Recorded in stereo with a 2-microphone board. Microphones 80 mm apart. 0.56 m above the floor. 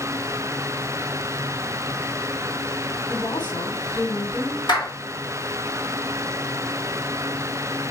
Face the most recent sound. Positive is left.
turn(degrees=65)  # may be behind; listen again after turning